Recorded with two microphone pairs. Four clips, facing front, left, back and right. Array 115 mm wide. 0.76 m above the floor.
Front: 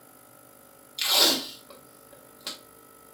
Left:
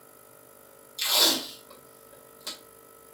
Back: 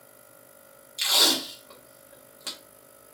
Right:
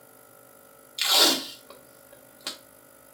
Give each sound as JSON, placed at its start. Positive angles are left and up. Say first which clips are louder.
{"t": 1.0, "sound": "tape being pulled", "louder": "right 4 dB, front 1 dB", "azimuth_deg": -85, "distance_m": 1.3}